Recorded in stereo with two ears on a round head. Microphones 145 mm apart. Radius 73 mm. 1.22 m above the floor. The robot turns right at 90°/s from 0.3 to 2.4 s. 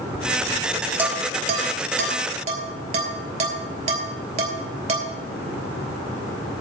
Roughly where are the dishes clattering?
Centre.